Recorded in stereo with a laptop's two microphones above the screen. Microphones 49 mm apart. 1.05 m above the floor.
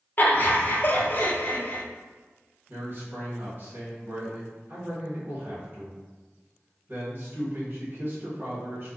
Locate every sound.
0.2 s laughter: 40° left (ahead or behind), 0.6 m
2.7 s a man speaking: 45° right (ahead or behind), 1.2 m